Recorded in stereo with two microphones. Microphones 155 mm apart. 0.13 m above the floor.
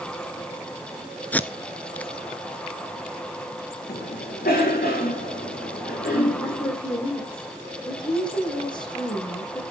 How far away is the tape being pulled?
About 0.7 m.